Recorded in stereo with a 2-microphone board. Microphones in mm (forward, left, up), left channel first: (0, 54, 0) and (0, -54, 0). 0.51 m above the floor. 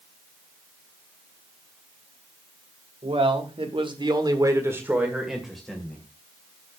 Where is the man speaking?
55° right (ahead or behind), 2 m; by 6.0 s 5° left (ahead or behind), 2.5 m.